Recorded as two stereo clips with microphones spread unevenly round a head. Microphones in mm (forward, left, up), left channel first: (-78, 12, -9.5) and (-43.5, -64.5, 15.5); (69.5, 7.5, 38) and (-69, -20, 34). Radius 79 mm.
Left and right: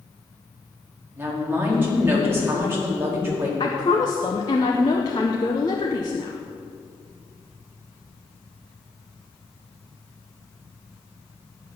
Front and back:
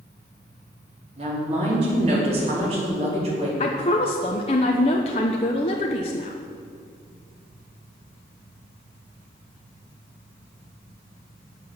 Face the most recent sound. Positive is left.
turn(degrees=55)